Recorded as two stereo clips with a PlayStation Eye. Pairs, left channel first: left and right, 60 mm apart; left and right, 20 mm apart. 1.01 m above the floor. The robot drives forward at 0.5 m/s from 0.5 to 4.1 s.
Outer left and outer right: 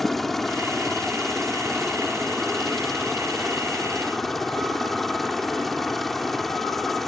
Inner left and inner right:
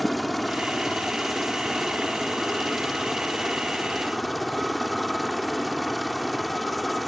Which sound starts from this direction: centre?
A helicopter, at 0.0 s.